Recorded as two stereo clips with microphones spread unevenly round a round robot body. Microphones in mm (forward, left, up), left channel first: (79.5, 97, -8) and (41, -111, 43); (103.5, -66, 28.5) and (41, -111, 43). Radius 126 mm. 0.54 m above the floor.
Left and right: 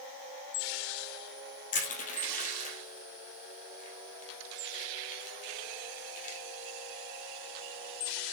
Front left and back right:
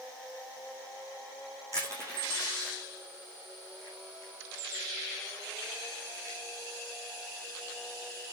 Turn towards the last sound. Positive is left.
turn(degrees=140)